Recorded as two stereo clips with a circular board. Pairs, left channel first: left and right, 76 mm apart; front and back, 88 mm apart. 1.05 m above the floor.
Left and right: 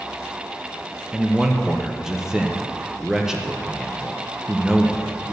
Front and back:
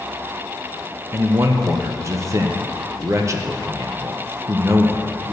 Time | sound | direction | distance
1.1 | a man speaking | 165° right | 0.8 m